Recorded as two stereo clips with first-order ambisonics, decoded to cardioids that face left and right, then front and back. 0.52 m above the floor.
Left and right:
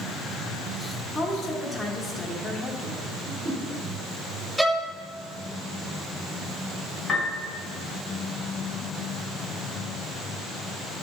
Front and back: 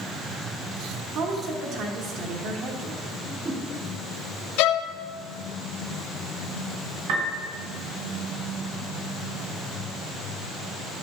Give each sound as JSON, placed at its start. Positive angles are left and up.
{"t": 1.1, "sound": "a woman speaking", "azimuth_deg": 170, "distance_m": 1.1}
{"t": 3.2, "sound": "a whoosh", "azimuth_deg": -135, "distance_m": 1.3}
{"t": 4.6, "sound": "a violin", "azimuth_deg": -5, "distance_m": 0.6}
{"t": 7.1, "sound": "a piano", "azimuth_deg": 175, "distance_m": 3.0}